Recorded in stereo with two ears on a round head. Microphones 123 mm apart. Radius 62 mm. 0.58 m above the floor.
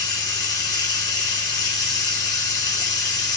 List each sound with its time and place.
0.0 s running water: 30° left (ahead or behind), 0.9 m